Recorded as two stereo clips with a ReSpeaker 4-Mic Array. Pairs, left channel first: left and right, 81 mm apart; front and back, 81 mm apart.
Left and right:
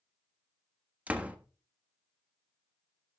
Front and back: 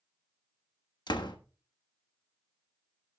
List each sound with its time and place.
1.1 s a door slam: 20° right, 1.2 m